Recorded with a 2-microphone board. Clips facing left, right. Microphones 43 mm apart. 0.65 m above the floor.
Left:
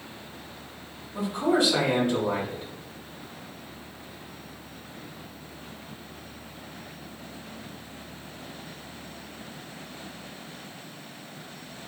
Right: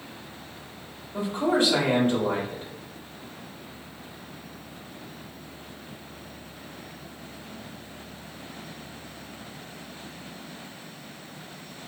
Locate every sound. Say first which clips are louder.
1.1 s a man speaking: even; 35° right (ahead or behind), 1.2 m